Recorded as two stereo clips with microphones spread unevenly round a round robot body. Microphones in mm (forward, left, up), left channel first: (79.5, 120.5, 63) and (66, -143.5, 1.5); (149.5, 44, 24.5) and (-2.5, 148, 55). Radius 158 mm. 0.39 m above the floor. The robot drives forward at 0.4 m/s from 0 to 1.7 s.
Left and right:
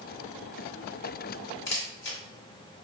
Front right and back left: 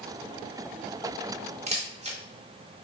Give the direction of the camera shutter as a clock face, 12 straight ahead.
9 o'clock.